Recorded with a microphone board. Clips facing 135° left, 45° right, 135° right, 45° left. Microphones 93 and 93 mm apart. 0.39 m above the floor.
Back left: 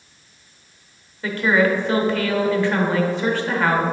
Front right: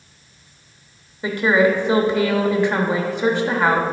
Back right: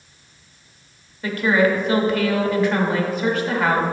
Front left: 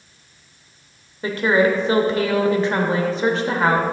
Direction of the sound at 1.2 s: 10° left.